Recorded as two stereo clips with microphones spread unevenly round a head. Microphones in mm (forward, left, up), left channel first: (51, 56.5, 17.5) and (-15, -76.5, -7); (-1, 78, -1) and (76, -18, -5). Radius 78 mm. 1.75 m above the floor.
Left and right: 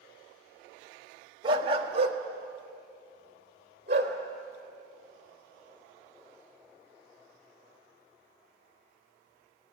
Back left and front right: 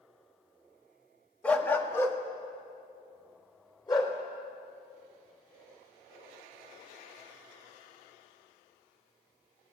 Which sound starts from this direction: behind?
A dog barking, at 1.4 s.